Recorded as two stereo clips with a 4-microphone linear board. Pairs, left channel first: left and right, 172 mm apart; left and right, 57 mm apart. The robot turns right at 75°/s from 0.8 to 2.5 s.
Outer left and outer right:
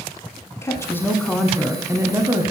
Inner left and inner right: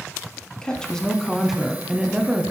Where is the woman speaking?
15° left (ahead or behind), 1.0 m; by 2.5 s 20° right (ahead or behind), 1.0 m.